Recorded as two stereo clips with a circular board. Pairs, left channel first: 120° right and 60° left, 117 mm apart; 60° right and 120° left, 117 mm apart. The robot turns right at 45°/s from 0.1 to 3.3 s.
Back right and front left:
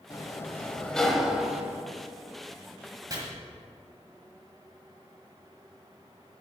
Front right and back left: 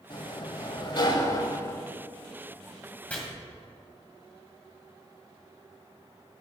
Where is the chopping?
15° left, 1.7 m.